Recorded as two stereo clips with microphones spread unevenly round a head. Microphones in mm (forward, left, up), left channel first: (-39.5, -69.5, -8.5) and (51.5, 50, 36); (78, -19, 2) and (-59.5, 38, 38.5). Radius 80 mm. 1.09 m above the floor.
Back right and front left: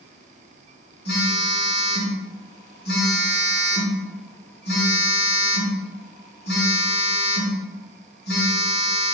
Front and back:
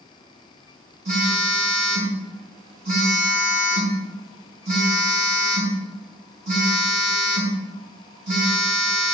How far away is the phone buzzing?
About 3.5 m.